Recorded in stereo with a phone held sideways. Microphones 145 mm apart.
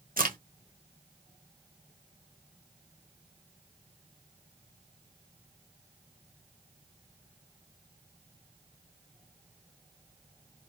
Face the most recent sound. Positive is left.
turn(degrees=-75)  # may be behind; listen again after turning